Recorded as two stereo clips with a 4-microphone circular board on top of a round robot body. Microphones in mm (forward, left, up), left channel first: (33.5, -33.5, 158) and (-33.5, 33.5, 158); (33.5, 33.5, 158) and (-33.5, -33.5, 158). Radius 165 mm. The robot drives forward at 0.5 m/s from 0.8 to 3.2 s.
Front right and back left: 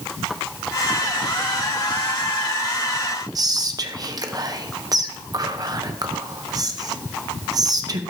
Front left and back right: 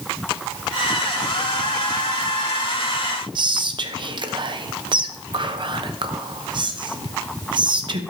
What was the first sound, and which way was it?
Whispering, 175° right.